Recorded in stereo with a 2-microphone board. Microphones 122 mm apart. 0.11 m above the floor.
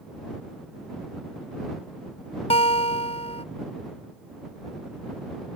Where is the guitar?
55° left (ahead or behind).